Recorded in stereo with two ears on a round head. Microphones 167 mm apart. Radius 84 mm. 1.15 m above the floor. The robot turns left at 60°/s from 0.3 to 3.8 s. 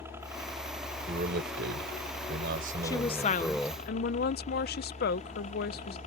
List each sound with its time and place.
0.0 s a helicopter: 15° right; by 6.1 s 135° left
1.1 s a man speaking: 35° right; by 3.8 s 160° left
2.8 s a woman speaking: 160° left; by 6.0 s 100° left